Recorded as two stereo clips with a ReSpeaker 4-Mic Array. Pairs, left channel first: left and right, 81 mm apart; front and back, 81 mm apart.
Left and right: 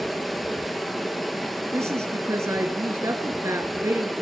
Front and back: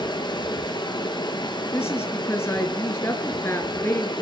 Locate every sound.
0.0 s running water: straight ahead, 2 m
1.7 s a woman speaking: 50° right, 1.9 m